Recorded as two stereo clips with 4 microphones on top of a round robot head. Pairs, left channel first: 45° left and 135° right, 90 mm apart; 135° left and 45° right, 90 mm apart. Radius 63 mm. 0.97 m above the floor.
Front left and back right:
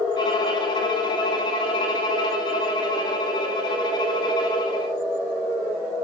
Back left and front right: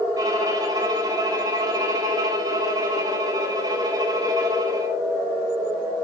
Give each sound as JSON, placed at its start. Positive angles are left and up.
{"t": 0.2, "sound": "a violin", "azimuth_deg": 5, "distance_m": 1.9}